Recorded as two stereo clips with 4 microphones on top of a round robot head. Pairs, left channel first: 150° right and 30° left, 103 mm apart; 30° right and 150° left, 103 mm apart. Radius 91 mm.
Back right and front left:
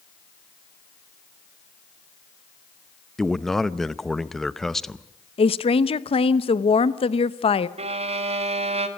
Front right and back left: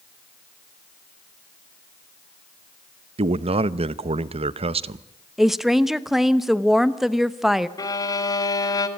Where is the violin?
20° left, 2.0 m.